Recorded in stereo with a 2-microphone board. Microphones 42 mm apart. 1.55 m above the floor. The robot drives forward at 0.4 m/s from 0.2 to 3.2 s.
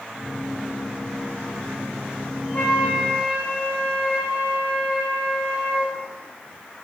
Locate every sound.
2.5 s a flute: 35° left (ahead or behind), 3.5 m